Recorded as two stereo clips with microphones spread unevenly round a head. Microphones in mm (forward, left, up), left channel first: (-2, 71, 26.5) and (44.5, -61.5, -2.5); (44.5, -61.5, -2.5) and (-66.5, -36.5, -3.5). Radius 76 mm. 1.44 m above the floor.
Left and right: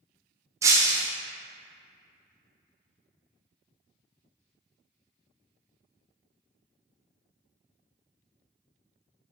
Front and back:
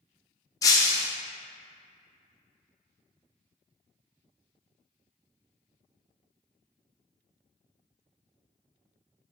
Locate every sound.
0.6 s breaking glass: 5° left, 0.5 m